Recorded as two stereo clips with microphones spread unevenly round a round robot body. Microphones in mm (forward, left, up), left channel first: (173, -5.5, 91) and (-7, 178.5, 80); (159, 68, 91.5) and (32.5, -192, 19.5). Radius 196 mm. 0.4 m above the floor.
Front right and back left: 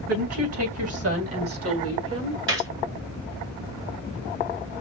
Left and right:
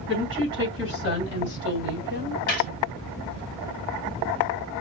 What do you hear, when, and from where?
0.1 s a woman speaking: 120° left, 3.5 m; by 2.4 s 130° left, 1.6 m
2.5 s a gunshot: 130° left, 2.0 m